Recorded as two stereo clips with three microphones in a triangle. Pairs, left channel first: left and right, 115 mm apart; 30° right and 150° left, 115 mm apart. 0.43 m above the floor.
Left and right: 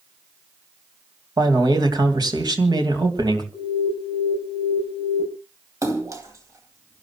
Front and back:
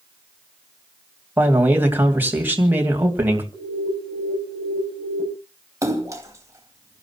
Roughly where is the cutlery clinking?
I don't hear cutlery clinking.